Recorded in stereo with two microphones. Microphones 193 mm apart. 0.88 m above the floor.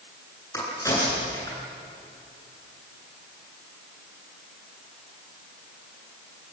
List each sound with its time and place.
0.5 s a crack: 15° left (ahead or behind), 10 m